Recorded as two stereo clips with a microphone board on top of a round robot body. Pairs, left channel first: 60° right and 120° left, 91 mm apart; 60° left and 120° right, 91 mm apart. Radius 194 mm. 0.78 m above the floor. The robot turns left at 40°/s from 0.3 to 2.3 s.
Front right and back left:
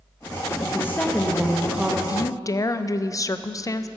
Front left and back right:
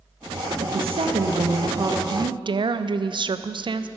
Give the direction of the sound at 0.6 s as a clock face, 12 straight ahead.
4 o'clock.